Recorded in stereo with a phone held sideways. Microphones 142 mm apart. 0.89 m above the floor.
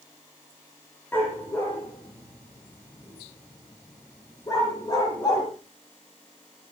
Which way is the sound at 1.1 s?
15° left (ahead or behind).